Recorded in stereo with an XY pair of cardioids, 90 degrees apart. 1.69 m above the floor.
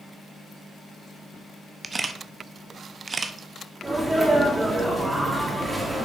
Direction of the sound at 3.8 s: 15° right.